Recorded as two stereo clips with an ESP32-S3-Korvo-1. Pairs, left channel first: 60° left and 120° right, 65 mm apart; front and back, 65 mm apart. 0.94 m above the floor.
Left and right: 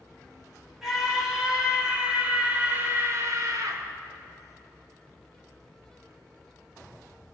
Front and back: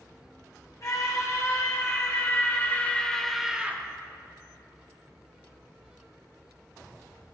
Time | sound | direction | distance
0.8 | a scream | 35° right | 4.5 m